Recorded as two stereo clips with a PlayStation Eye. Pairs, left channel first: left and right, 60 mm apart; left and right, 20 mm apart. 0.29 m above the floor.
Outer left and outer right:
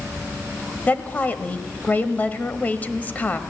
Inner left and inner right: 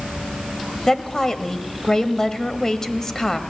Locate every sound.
0.9 s a woman speaking: 30° left (ahead or behind), 1.1 m